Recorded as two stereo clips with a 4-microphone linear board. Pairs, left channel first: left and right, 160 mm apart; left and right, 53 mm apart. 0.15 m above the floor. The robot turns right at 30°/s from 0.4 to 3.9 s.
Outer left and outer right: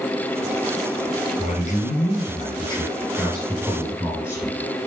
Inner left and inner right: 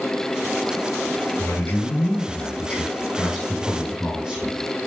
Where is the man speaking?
115° left, 3.5 m; by 4.6 s 170° right, 3.5 m.